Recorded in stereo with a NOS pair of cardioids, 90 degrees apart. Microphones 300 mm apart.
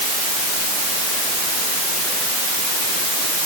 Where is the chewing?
No chewing in this recording.